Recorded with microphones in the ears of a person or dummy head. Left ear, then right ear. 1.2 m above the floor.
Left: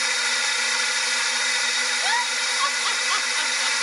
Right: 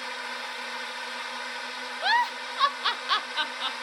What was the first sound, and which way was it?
A drone, 65° left (ahead or behind).